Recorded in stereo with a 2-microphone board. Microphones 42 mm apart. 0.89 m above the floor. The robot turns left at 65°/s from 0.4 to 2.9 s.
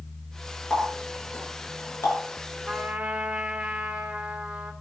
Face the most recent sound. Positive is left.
turn(degrees=-15)  # may be behind; listen again after turning